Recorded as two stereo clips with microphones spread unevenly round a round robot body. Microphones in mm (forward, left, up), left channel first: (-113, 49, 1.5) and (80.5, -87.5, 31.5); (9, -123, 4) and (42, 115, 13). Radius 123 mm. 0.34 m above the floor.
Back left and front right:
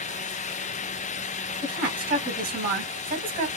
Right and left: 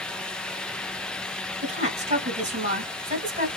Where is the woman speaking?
20° left, 1.9 m.